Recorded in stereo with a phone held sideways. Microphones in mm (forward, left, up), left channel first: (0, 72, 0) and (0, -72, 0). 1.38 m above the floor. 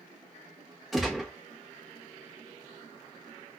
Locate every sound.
0.9 s a gunshot: centre (ahead or behind), 1.2 m